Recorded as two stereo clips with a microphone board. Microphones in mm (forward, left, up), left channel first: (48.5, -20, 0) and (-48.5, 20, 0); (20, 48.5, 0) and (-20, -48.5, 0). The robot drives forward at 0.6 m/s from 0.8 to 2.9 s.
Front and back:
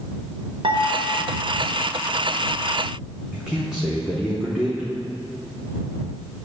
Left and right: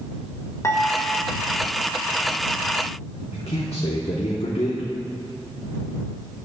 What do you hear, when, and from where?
0.6 s dishes clattering: 130° left, 1.4 m; by 1.3 s 135° left, 1.6 m
3.3 s a man speaking: 75° left, 1.0 m